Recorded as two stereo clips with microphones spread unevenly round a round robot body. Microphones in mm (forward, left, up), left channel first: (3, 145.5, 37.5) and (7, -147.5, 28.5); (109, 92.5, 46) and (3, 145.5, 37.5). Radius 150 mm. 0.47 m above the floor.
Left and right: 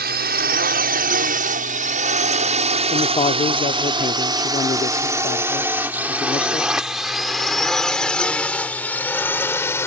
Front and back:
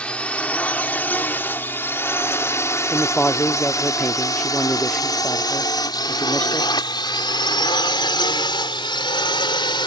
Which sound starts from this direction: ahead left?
A man speaking, at 2.9 s.